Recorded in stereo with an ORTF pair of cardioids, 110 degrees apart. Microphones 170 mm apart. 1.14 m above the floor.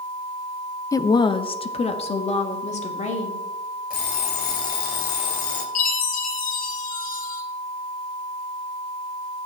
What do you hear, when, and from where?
0.9 s a woman speaking: 20° left, 0.6 m; by 3.5 s 45° left, 3 m
3.9 s an alarm clock: 65° left, 2 m
5.8 s a chime: 60° left, 2 m